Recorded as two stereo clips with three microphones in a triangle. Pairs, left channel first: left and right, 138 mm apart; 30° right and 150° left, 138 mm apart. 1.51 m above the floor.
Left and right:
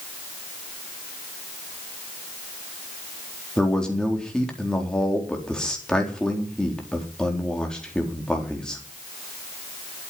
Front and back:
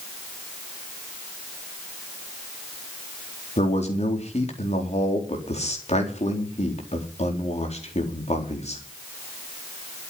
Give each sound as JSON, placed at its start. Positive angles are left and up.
{"t": 3.6, "sound": "a man speaking", "azimuth_deg": 5, "distance_m": 4.0}